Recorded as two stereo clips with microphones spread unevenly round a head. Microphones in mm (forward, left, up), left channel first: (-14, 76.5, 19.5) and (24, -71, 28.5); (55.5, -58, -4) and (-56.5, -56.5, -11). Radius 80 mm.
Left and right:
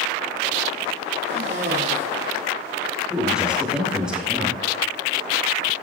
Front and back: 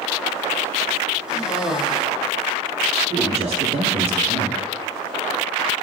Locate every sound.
1.3 s a cough: 95° right, 7.5 m
3.1 s a man speaking: 160° right, 7 m